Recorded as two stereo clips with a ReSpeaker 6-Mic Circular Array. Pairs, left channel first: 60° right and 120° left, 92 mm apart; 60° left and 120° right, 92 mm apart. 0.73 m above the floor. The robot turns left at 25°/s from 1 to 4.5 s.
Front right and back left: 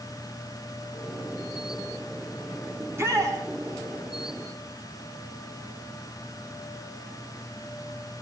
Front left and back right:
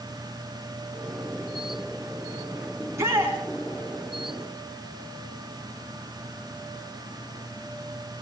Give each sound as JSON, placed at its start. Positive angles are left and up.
{"t": 2.8, "sound": "a shout", "azimuth_deg": -175, "distance_m": 6.5}